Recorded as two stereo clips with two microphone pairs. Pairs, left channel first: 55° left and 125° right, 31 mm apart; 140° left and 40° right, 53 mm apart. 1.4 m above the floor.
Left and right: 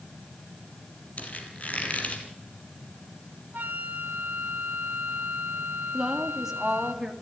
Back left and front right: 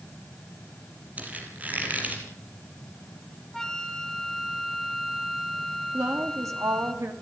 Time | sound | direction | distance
1.2 | a squeak | 20° left | 5 m
3.5 | a flute | 140° right | 1.5 m
5.9 | a woman speaking | 50° right | 3 m